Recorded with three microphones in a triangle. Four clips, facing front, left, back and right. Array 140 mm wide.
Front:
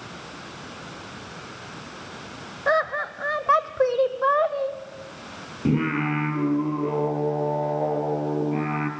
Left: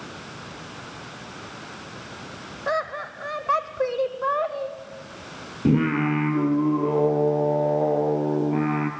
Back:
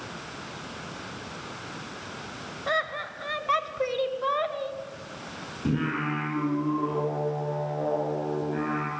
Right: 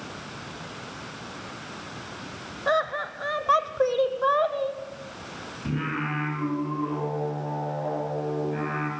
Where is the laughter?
15° right, 1.7 m.